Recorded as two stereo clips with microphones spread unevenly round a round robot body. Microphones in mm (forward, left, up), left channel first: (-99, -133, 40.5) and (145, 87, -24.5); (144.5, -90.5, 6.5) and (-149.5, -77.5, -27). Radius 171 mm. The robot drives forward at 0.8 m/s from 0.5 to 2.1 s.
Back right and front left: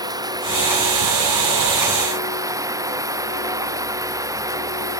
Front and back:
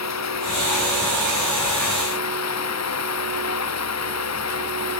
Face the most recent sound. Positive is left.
turn(degrees=-40)